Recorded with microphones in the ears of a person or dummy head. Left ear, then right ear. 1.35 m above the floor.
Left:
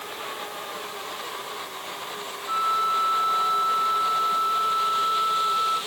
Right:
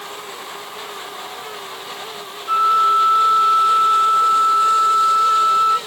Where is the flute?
75° right (ahead or behind), 2.5 m.